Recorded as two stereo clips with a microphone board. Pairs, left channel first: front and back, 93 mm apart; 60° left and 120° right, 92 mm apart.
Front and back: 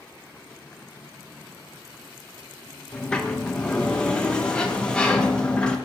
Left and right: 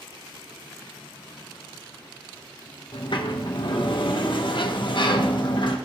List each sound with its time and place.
2.9 s a sliding door: 80° left, 1.1 m